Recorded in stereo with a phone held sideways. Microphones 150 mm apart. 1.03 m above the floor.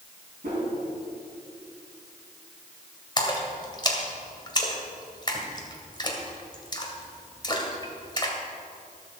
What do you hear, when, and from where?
0.4 s a whoosh: 65° right (ahead or behind), 4.5 m
3.2 s a splash: 30° left (ahead or behind), 2 m